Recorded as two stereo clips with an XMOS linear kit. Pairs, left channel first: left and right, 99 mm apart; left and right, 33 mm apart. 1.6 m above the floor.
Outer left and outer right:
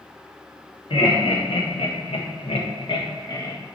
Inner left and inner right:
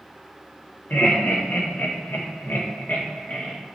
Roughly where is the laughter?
Left.